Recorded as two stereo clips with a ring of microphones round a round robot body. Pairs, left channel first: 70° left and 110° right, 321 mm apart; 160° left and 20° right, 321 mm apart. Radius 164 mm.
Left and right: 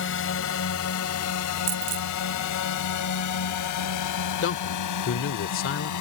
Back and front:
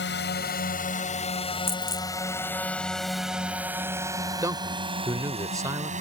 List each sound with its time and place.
0.0 s a drone: 110° left; by 6.0 s 45° left
1.7 s a dropped coin: 120° right
4.4 s a man speaking: 50° left